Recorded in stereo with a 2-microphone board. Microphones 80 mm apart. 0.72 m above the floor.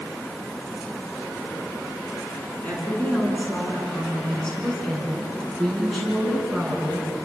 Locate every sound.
2.6 s a woman speaking: 20° left (ahead or behind), 9.5 m; by 7.1 s centre (ahead or behind), 10.5 m